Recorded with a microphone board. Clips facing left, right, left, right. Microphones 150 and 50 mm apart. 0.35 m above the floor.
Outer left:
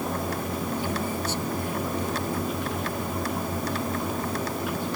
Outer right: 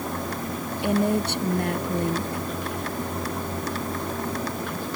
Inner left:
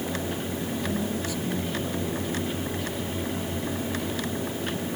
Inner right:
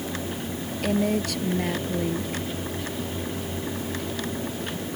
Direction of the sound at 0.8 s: 65° right (ahead or behind).